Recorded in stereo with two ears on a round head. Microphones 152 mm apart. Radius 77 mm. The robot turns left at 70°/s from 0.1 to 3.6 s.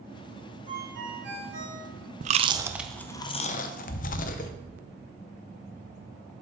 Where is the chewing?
45° right (ahead or behind), 0.6 m; by 4.5 s 50° left (ahead or behind), 0.6 m.